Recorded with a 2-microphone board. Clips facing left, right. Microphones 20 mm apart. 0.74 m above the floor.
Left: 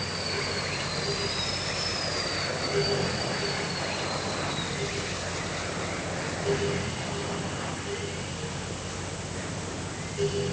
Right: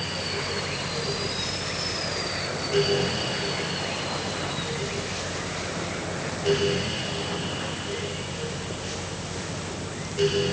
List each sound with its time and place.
Only background noise.